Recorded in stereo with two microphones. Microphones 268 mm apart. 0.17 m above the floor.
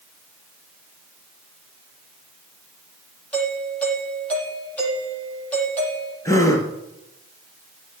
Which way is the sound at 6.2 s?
10° left (ahead or behind).